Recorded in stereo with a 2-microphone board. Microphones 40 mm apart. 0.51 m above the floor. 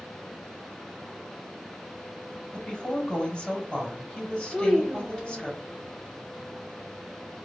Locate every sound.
2.5 s a woman speaking: 15° left (ahead or behind), 2 m
4.5 s a child speaking: 15° right (ahead or behind), 1.5 m